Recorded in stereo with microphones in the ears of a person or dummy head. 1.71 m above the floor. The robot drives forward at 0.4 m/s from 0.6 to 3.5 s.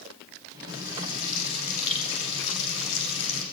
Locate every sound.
0.7 s frying: 65° left (ahead or behind), 9.5 m; by 3.4 s 60° left (ahead or behind), 10 m